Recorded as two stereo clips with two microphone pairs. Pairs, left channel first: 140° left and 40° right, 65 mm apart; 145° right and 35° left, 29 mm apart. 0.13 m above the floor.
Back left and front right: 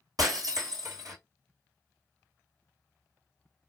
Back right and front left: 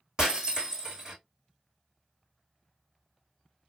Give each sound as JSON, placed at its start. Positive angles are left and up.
{"t": 0.2, "sound": "breaking glass", "azimuth_deg": -30, "distance_m": 2.5}